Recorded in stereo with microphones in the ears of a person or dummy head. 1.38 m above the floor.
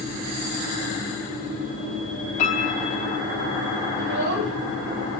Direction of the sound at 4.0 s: 60° right (ahead or behind).